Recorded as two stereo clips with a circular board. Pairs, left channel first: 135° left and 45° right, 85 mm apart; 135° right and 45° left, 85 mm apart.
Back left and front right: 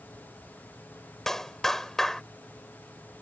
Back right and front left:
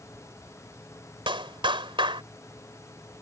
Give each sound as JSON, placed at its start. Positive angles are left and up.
{"t": 1.3, "sound": "a clap", "azimuth_deg": 50}